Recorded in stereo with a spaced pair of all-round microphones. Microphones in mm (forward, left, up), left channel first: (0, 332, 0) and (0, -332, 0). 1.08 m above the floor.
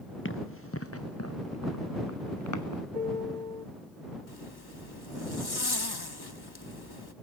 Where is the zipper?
35° left (ahead or behind).